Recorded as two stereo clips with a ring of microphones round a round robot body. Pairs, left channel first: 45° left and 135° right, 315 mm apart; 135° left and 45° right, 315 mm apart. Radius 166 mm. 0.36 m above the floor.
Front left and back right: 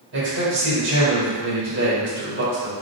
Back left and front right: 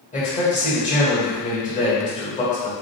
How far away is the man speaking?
About 1.9 m.